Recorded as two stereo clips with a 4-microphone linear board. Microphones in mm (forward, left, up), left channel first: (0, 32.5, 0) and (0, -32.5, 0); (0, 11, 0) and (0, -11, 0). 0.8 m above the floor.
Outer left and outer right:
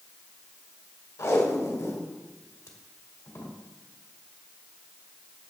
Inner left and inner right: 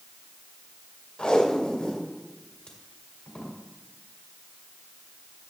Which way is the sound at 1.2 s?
55° left (ahead or behind).